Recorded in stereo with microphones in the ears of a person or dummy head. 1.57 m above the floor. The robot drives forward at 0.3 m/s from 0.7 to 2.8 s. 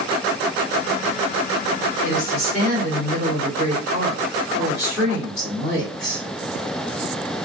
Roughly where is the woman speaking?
Centre.